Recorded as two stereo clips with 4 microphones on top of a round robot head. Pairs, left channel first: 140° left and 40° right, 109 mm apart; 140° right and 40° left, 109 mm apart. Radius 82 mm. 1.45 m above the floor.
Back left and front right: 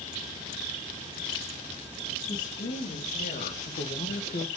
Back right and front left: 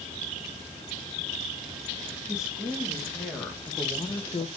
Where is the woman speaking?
125° left, 3 m; by 4.5 s straight behind, 1.0 m.